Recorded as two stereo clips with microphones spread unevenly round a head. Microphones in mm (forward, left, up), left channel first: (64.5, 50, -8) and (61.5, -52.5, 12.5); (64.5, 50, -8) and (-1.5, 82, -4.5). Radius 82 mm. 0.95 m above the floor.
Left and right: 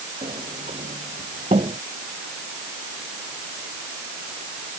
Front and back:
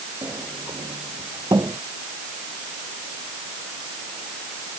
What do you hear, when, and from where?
0.2 s a sliding door: 145° right